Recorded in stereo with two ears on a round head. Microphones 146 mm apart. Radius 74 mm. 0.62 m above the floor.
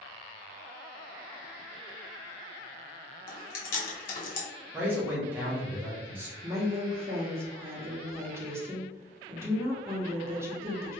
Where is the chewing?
55° left (ahead or behind), 1.0 m.